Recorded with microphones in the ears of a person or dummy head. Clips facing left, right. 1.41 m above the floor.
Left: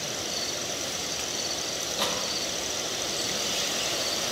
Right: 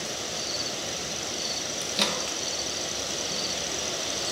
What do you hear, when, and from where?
1.8 s a microwave: 35° right (ahead or behind), 1.5 m